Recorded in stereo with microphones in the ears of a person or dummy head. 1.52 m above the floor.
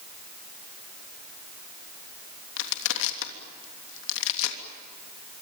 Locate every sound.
2.6 s crushing: 75° left (ahead or behind), 3 m